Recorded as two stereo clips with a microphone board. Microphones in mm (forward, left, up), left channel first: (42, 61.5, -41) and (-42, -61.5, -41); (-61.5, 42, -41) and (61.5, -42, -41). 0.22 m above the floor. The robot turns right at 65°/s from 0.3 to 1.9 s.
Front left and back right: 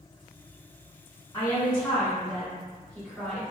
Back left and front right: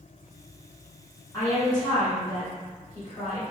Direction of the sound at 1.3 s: 105° left.